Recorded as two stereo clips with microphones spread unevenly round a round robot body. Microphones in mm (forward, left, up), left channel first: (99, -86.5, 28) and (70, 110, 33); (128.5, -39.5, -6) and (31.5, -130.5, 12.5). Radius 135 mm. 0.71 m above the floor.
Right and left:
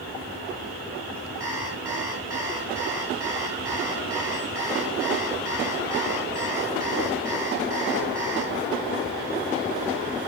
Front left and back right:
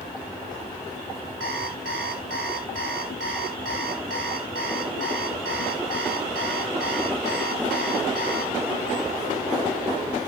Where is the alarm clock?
Straight behind, 1.7 m.